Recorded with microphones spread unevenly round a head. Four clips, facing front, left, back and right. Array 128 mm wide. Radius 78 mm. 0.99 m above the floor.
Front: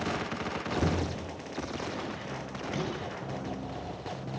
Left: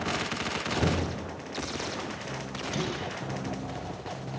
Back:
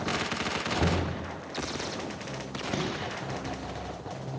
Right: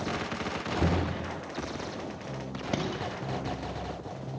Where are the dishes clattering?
120° right, 4.5 m.